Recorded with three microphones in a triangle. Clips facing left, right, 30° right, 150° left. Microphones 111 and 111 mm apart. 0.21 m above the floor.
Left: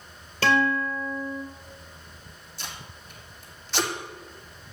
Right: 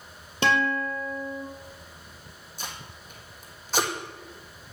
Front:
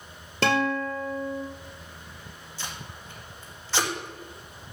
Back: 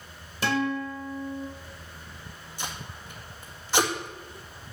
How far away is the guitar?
About 2 m.